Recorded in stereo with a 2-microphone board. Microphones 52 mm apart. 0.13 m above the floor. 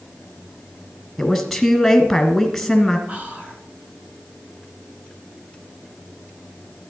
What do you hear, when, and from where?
1.2 s a woman speaking: 5° left (ahead or behind), 1.3 m
3.1 s whispering: 25° right (ahead or behind), 1.6 m